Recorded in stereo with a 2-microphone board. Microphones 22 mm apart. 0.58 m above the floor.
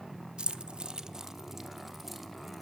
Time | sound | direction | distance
0.4 | keys jangling | 55° right (ahead or behind) | 0.8 m